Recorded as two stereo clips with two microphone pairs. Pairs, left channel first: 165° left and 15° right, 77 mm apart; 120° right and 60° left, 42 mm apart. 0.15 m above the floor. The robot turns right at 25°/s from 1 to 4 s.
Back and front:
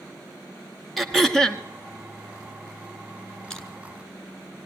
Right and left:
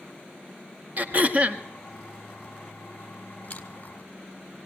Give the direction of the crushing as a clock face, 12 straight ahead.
4 o'clock.